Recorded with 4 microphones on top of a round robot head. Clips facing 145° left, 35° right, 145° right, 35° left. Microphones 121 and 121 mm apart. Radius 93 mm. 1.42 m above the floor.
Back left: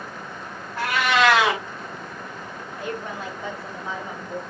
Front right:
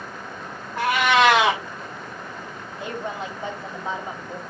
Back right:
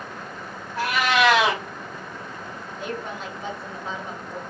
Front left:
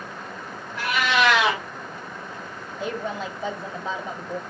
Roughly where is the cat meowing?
Right.